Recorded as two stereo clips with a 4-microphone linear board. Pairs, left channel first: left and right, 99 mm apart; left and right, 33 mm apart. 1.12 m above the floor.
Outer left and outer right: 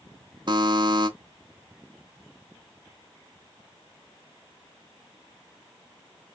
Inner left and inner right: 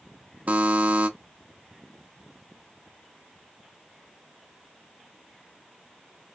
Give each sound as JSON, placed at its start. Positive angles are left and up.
{"t": 0.5, "sound": "a buzzer", "side_deg": -45, "distance_m": 0.8}